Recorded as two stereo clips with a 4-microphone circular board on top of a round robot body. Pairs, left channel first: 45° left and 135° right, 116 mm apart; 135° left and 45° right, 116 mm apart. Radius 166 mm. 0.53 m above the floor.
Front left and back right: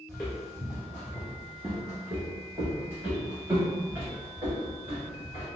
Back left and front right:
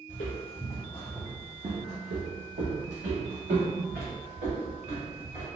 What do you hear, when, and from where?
0.1 s footsteps: 115° left, 0.7 m; by 5.5 s 65° right, 2.5 m